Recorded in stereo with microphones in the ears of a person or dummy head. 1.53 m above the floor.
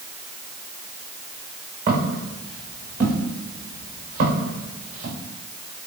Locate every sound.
1.9 s footsteps: 45° right (ahead or behind), 6 m